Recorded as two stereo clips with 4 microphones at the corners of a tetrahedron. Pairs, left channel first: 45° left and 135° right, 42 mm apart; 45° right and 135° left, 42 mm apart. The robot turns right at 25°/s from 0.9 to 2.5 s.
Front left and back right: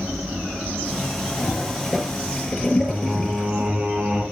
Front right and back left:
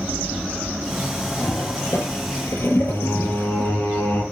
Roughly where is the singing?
Right.